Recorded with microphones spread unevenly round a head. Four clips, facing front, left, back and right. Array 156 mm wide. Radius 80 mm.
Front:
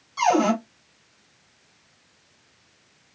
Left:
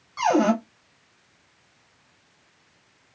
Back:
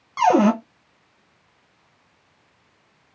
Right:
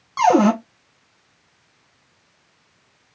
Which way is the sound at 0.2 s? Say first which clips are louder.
Right 5 dB, back 4 dB; 125° right.